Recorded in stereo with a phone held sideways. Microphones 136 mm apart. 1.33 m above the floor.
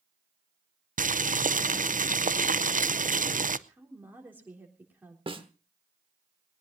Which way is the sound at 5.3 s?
40° right (ahead or behind).